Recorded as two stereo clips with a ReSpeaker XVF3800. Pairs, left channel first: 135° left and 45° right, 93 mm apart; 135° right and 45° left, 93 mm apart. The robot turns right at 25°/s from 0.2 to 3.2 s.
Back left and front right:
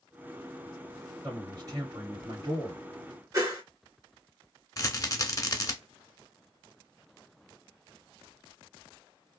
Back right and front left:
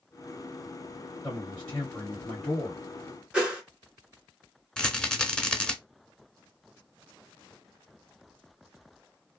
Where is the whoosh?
30° right, 1.4 m.